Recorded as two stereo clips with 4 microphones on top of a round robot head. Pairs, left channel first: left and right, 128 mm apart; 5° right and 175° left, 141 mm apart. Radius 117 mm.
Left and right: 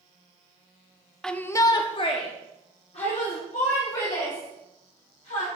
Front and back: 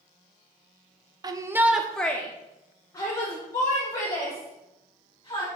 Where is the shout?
175° left, 0.7 m; by 5.5 s 55° left, 3.5 m.